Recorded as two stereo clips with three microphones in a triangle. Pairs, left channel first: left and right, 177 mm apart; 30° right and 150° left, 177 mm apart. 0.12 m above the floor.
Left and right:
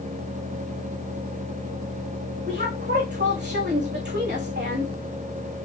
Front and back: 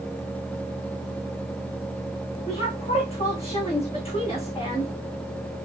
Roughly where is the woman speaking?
Right.